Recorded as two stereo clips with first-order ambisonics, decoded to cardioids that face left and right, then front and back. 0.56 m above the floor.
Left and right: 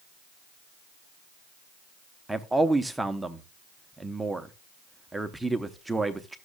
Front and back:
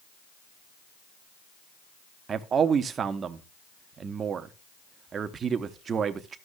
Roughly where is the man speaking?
Behind.